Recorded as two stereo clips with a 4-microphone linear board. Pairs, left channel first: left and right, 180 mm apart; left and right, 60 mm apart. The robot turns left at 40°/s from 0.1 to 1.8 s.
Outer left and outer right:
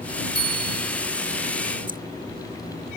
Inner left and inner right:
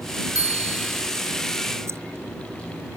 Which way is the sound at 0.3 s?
70° left (ahead or behind).